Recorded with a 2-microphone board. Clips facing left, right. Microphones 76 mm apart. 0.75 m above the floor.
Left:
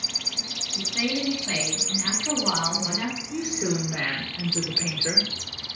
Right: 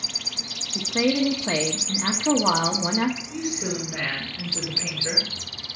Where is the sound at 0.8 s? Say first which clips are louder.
Right 6 dB; 45° right (ahead or behind), 1.2 m.